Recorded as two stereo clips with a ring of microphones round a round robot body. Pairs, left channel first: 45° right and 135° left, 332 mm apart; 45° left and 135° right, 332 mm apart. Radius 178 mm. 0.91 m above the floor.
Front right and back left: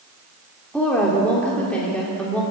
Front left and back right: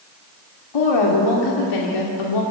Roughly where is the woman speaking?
Ahead left.